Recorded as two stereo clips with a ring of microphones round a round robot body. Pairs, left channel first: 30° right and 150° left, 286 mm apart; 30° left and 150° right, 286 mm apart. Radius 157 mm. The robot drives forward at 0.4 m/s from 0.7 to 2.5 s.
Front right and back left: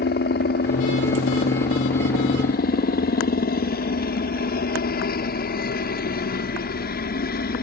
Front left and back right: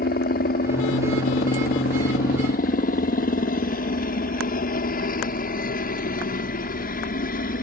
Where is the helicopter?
5° right.